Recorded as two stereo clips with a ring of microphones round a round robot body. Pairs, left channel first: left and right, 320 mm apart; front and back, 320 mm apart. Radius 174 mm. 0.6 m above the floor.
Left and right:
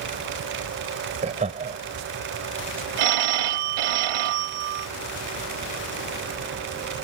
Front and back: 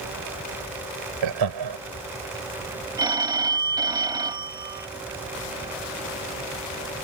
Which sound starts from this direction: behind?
Laughter, at 1.2 s.